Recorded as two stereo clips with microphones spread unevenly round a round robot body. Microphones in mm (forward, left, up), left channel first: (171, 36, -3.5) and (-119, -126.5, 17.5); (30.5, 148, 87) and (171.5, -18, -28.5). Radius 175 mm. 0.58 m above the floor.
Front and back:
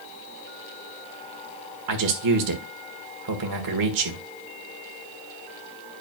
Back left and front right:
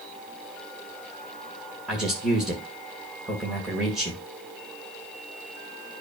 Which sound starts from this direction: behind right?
A man speaking, at 1.9 s.